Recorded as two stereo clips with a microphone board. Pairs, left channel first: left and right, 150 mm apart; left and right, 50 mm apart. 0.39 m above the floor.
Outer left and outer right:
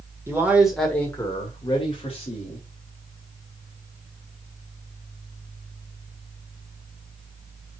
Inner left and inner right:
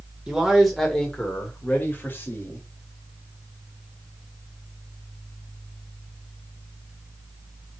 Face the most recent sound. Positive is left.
turn(degrees=45)  # may be behind; listen again after turning